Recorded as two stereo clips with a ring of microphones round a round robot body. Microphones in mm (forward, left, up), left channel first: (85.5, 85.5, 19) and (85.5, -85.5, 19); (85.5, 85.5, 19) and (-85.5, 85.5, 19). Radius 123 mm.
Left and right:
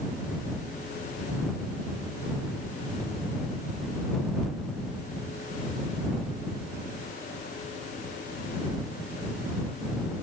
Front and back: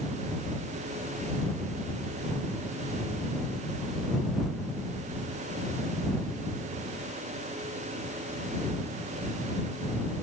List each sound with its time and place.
Only background noise.